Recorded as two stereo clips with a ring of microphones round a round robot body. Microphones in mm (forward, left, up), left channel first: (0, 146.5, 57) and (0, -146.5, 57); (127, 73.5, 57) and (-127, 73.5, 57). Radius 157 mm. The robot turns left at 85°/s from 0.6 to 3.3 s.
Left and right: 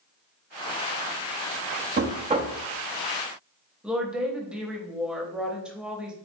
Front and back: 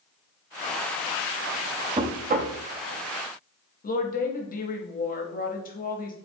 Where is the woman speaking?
5° right, 0.9 m.